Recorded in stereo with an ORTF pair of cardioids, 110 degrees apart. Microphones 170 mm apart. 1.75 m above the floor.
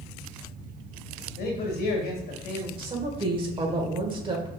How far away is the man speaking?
About 1.7 m.